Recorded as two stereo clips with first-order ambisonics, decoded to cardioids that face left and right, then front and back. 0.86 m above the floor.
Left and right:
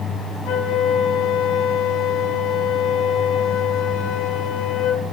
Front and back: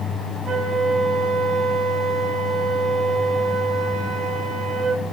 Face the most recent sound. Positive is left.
turn(degrees=120)